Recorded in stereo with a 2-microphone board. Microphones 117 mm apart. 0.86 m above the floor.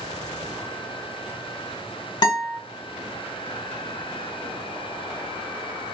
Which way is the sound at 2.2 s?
40° left (ahead or behind).